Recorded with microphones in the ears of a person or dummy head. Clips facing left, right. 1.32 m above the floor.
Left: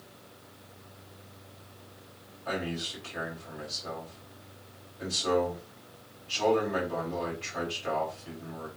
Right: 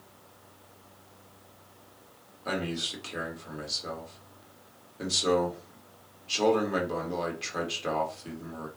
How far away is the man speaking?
About 1.6 m.